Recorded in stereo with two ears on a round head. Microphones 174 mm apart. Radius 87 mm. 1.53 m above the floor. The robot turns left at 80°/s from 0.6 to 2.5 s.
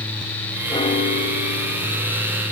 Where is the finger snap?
No finger snap in this recording.